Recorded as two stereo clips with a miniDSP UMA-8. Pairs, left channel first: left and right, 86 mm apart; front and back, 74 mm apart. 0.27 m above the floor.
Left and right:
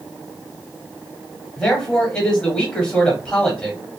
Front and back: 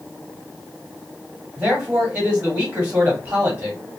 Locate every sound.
1.6 s a man speaking: 145° left, 1.1 m